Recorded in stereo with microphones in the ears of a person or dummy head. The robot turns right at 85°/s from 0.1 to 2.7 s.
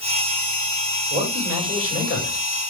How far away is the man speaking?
About 6.5 m.